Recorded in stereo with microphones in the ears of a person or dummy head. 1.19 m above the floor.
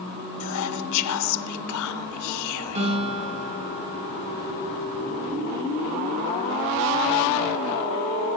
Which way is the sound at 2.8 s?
40° right (ahead or behind).